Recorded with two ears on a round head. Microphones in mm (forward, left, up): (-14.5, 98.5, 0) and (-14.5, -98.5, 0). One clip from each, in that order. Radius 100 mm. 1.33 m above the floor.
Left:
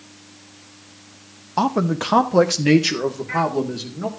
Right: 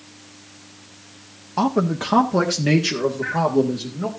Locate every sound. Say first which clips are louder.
1.6 s a man speaking: left 1 dB; 15° left (ahead or behind), 0.6 m; by 4.1 s 30° left (ahead or behind), 2.5 m